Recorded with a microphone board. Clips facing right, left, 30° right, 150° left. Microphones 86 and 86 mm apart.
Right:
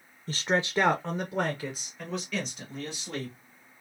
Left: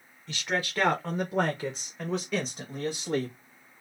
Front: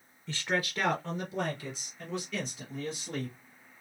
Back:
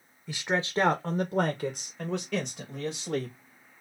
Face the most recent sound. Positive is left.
turn(degrees=140)